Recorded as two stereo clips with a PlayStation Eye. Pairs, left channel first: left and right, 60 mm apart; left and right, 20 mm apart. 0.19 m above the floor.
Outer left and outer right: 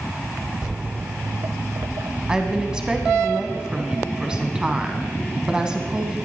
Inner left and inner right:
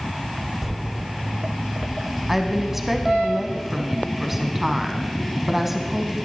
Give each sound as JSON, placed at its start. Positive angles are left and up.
{"t": 0.6, "sound": "footsteps", "side_deg": -15, "distance_m": 0.6}
{"t": 2.3, "sound": "a woman speaking", "side_deg": -15, "distance_m": 1.4}